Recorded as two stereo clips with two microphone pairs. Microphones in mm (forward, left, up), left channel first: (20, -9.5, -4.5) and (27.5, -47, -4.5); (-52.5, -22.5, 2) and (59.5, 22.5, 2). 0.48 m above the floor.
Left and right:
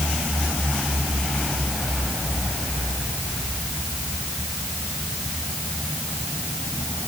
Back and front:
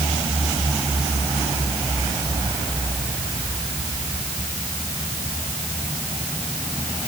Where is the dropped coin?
I don't hear a dropped coin.